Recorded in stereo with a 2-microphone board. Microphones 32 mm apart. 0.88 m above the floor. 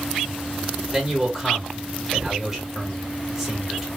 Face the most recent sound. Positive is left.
turn(degrees=-5)  # may be behind; listen again after turning